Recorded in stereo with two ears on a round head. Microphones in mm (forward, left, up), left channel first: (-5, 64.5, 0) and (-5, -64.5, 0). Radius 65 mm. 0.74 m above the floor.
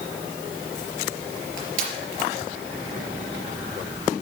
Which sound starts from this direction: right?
Crushing, at 1.6 s.